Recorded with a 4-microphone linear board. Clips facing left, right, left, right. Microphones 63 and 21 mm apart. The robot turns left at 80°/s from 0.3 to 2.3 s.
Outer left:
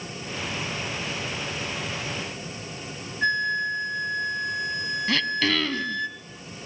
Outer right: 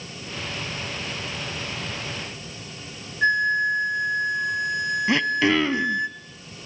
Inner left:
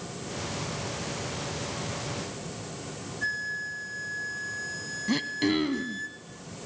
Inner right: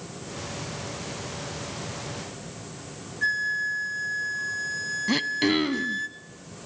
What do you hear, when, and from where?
3.2 s a flute: 20° right (ahead or behind), 1.0 m
5.1 s throat clearing: 20° right (ahead or behind), 0.6 m